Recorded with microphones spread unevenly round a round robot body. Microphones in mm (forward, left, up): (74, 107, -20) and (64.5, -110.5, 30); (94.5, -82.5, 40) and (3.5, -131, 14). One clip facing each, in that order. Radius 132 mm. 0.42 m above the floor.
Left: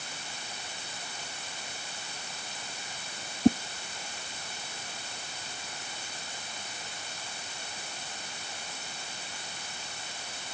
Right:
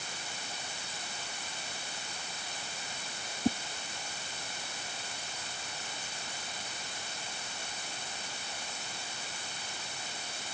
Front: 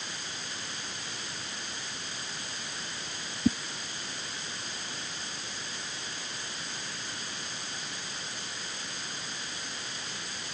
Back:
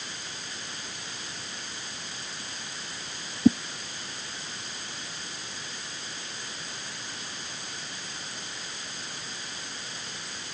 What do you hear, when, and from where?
3.5 s a whoosh: 160° left